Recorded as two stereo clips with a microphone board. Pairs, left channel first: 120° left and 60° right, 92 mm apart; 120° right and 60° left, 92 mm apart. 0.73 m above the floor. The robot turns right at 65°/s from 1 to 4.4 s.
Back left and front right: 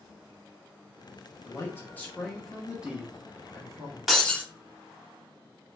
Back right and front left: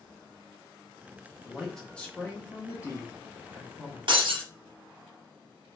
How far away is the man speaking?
About 0.8 m.